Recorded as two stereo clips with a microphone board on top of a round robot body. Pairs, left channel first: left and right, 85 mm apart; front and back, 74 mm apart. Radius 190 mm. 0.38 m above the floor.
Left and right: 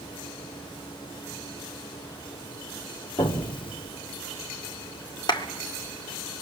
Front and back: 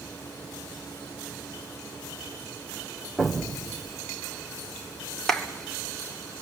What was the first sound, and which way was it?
An explosion, 90° left.